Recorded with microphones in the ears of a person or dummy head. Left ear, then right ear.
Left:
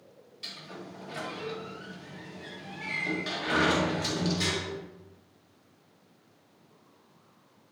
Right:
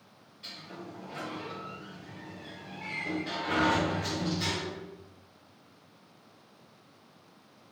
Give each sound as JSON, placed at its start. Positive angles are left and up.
{"t": 0.4, "sound": "a sliding door", "side_deg": 45, "distance_m": 2.5}